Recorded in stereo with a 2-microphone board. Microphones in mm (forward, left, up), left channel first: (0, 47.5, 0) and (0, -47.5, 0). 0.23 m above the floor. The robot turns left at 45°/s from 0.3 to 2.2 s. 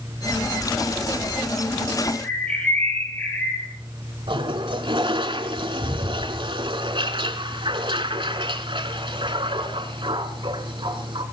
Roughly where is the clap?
No clap in this recording.